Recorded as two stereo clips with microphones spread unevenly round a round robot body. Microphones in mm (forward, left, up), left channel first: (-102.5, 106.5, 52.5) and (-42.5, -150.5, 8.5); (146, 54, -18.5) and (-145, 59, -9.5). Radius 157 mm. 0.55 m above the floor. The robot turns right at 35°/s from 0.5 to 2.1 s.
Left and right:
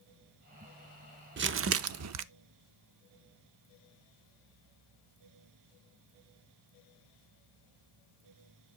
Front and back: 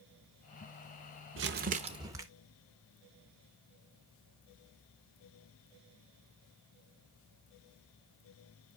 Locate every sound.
1.4 s crumpling: 125° right, 0.5 m; by 2.2 s 100° right, 0.5 m